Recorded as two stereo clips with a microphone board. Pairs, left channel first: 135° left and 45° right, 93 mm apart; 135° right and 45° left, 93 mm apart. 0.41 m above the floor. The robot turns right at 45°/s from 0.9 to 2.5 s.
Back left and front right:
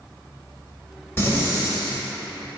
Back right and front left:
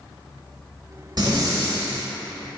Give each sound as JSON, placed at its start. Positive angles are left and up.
{"t": 1.2, "sound": "breathing", "azimuth_deg": 75, "distance_m": 1.2}